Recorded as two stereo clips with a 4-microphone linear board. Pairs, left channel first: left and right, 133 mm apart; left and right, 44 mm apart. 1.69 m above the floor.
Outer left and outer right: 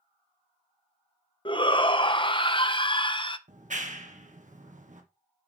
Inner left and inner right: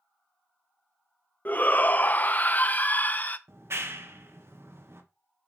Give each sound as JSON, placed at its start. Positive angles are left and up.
{"t": 1.4, "sound": "a shout", "side_deg": 40, "distance_m": 0.9}
{"t": 3.5, "sound": "a clap", "side_deg": -70, "distance_m": 1.6}